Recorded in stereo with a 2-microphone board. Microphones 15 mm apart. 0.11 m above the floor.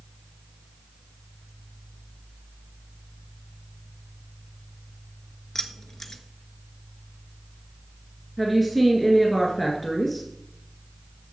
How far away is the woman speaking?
About 1.7 m.